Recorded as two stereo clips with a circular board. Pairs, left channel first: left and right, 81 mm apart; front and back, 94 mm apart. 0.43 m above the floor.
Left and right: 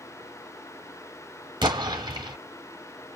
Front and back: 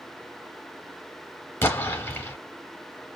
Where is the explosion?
65° right, 1.0 m.